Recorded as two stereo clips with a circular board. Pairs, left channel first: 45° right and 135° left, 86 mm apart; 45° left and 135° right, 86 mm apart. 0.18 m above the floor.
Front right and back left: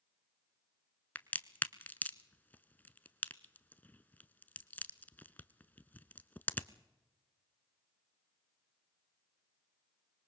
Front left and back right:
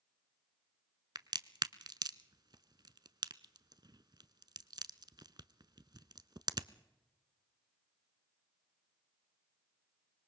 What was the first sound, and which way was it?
A crack, 110° right.